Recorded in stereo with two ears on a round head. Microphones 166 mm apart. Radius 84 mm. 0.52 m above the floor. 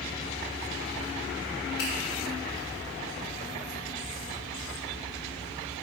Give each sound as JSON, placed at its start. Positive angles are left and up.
{"t": 1.8, "sound": "a finger snap", "side_deg": 55, "distance_m": 2.0}